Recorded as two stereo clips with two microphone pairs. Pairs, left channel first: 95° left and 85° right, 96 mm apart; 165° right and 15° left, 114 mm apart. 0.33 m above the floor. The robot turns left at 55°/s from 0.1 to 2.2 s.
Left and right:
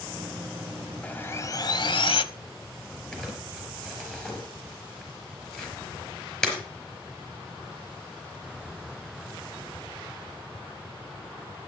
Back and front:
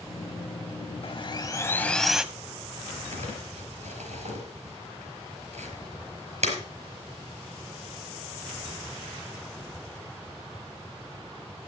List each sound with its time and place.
1.0 s sawing: 170° left, 0.9 m; by 2.2 s 105° left, 0.9 m
3.1 s crumpling: 15° left, 4.5 m